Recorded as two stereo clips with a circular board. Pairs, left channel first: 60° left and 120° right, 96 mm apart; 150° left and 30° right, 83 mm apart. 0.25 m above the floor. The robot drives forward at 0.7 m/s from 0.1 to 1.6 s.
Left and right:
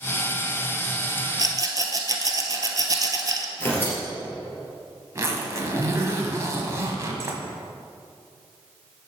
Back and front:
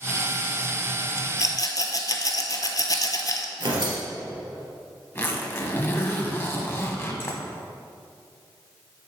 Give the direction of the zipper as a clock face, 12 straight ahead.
5 o'clock.